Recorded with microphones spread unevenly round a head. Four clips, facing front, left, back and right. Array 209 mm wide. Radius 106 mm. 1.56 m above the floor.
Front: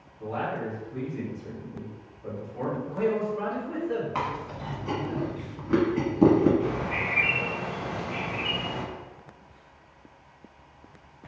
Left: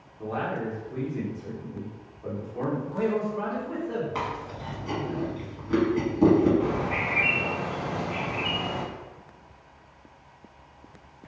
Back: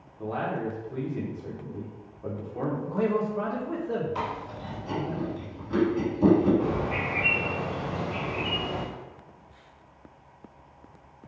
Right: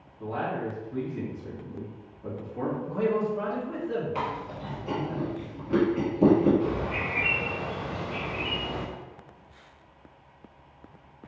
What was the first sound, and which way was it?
A man speaking, 155° left.